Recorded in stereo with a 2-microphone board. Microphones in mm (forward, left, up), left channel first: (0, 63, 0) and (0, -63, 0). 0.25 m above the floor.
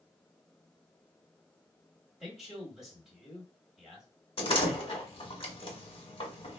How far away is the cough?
No cough in this recording.